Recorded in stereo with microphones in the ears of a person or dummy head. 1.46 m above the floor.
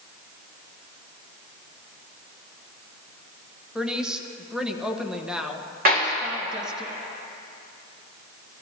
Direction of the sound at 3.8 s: 5° right (ahead or behind).